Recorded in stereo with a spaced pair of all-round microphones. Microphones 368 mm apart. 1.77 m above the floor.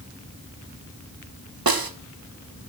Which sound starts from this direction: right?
A snare drum, at 1.7 s.